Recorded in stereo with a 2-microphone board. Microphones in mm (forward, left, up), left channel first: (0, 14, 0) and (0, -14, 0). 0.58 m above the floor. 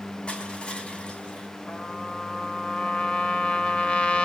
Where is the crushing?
45° left (ahead or behind), 4 m.